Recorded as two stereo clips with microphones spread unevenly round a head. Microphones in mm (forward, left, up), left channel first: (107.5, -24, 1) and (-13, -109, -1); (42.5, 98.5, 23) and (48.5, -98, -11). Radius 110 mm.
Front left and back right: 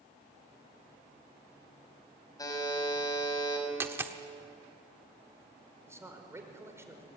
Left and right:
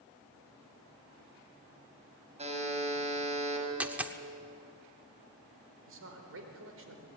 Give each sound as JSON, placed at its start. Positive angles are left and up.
{"t": 2.4, "sound": "a buzzer", "azimuth_deg": -30, "distance_m": 6.5}
{"t": 3.8, "sound": "a dropped coin", "azimuth_deg": 175, "distance_m": 1.1}
{"t": 5.9, "sound": "a man speaking", "azimuth_deg": -70, "distance_m": 5.0}